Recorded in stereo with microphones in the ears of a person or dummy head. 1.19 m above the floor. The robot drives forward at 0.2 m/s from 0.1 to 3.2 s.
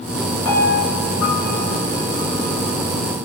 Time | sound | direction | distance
0.5 | a piano | 75° left (ahead or behind) | 1.1 m